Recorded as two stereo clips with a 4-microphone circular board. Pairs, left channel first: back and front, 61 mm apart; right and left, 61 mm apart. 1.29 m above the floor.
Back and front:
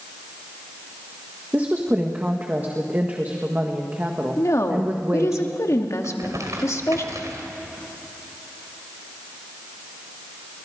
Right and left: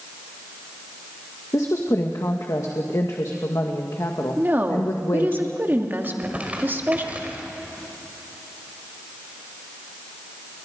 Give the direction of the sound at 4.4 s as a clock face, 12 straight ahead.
7 o'clock.